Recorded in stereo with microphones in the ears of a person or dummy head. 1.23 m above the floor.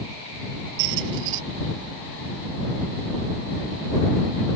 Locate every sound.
0.8 s a squeak: 70° right (ahead or behind)